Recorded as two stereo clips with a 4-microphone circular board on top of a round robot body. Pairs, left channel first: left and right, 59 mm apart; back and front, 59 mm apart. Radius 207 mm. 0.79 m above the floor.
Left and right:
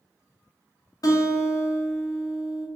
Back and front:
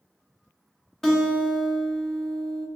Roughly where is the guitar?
Left.